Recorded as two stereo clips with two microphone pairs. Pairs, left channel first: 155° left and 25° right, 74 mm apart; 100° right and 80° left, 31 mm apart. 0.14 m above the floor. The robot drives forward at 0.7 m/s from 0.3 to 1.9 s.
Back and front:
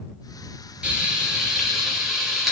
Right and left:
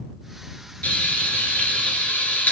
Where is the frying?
95° right, 3 m; by 2.5 s 110° right, 3 m.